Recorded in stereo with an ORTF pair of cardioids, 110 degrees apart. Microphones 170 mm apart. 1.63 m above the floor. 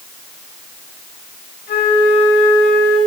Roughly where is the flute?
Left.